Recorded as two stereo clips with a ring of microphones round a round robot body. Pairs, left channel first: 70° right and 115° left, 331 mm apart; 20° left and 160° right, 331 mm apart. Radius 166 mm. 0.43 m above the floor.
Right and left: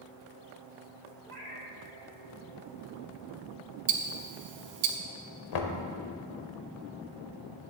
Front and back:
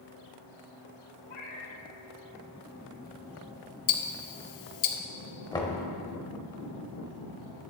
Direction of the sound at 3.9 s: 55° left.